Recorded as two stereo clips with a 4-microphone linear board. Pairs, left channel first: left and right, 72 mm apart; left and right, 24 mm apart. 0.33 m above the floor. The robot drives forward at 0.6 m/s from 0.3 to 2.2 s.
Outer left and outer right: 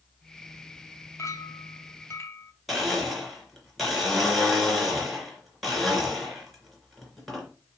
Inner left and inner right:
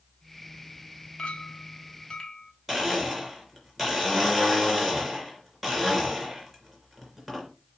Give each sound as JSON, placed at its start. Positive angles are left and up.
{"t": 1.2, "sound": "a clink", "side_deg": 45, "distance_m": 0.9}
{"t": 2.7, "sound": "a blender", "side_deg": 0, "distance_m": 3.0}